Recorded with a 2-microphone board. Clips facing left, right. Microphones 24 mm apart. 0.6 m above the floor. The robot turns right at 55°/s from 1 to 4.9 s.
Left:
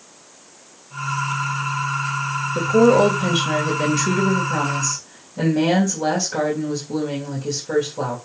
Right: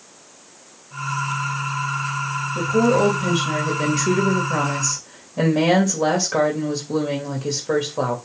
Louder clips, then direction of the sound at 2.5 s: Left 4 dB; 110° left.